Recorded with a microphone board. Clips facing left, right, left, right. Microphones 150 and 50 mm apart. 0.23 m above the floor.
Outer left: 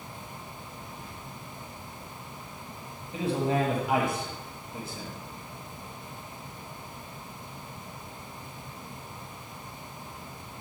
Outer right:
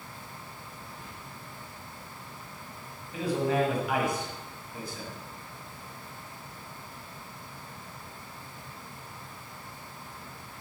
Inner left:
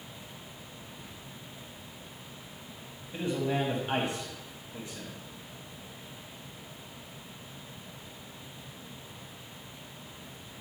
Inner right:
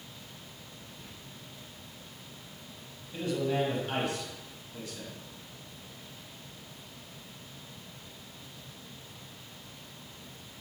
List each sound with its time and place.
1.0 s whispering: 5° left (ahead or behind), 1.9 m
3.1 s a man speaking: 25° left (ahead or behind), 1.3 m